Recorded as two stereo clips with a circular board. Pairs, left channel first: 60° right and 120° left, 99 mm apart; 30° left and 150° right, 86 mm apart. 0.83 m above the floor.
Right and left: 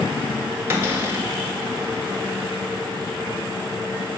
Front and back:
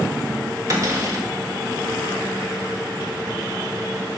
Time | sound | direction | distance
0.7 | a cupboard door | straight behind | 1.4 m